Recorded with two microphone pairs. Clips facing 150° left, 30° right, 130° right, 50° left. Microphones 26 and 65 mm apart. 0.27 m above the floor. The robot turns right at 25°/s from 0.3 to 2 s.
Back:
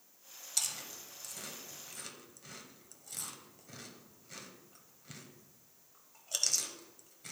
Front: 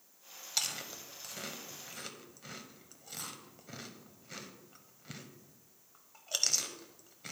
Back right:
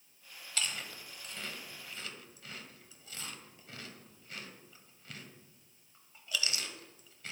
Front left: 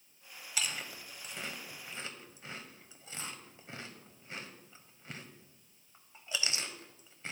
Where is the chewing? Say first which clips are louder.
Front 2 dB, even; 25° right, 1.1 m; by 7.3 s 10° left, 1.1 m.